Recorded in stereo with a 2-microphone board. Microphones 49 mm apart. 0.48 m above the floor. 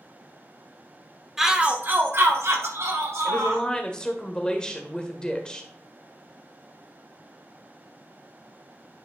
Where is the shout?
5° right (ahead or behind), 1.2 m; by 3.6 s 70° right (ahead or behind), 3.5 m.